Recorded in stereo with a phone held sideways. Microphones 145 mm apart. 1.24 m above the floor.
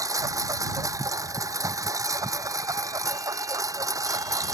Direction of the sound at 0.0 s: 25° right (ahead or behind).